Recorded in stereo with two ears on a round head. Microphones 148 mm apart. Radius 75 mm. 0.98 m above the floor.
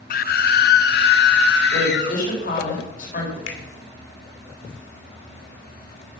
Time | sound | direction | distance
0.1 | a scream | 55° left (ahead or behind) | 0.9 m
1.7 | a woman speaking | 50° left (ahead or behind) | 5 m
3.5 | a finger snap | 80° left | 2.5 m